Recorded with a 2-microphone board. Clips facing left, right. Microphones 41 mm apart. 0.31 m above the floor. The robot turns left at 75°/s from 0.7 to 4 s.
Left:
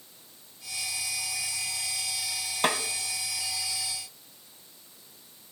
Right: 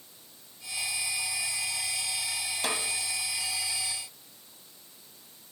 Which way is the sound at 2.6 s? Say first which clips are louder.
Left 6 dB; 50° left (ahead or behind).